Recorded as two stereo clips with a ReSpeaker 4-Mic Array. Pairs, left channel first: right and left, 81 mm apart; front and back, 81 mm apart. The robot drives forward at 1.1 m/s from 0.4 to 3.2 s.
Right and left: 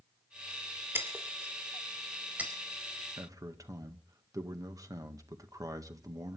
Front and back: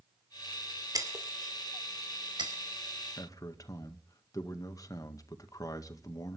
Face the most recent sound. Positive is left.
turn(degrees=45)